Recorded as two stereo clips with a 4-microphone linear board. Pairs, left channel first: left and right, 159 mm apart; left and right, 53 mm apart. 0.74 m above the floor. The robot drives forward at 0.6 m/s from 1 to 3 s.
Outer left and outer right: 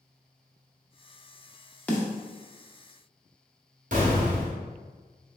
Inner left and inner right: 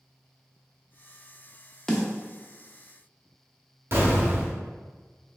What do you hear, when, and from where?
1.9 s a snare drum: 10° left (ahead or behind), 0.8 m; by 2.1 s 5° left (ahead or behind), 0.9 m
3.9 s an explosion: 50° right (ahead or behind), 1.2 m